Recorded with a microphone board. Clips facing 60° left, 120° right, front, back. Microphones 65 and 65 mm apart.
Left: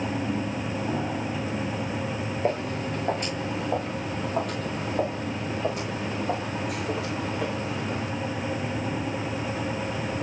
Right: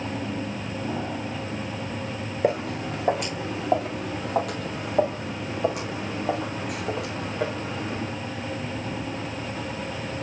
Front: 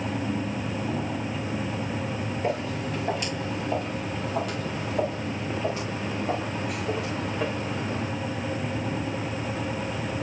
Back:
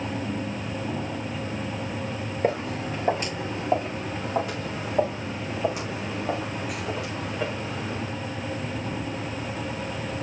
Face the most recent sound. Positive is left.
turn(degrees=-85)